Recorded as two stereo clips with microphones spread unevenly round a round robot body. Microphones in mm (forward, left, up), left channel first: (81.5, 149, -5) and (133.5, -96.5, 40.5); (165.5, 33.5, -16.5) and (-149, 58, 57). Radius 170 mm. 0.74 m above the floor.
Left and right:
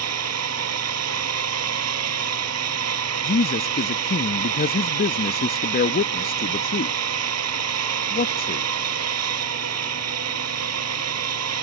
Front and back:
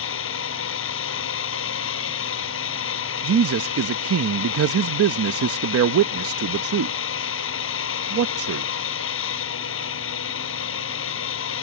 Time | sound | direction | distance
0.0 | a drone | 60° right | ?
3.2 | a man speaking | 125° left | ?